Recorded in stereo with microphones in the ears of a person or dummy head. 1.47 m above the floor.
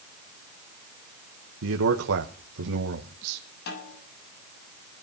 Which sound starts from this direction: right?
A man speaking, at 1.6 s.